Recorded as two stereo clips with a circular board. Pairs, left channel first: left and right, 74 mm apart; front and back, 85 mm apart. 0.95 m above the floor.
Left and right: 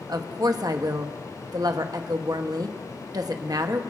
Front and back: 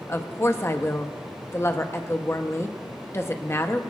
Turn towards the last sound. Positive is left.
turn(degrees=-60)